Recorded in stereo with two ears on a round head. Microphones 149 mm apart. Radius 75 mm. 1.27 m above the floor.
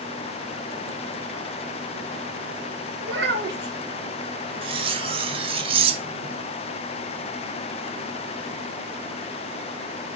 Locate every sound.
3.0 s a child speaking: 75° right (ahead or behind), 1.8 m
4.6 s cutlery clinking: 35° right (ahead or behind), 0.7 m